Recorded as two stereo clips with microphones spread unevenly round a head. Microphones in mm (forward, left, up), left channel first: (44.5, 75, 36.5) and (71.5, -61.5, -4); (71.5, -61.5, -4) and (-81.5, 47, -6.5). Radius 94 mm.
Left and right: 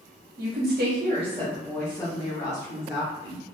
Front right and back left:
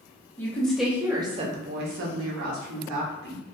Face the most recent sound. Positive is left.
turn(degrees=125)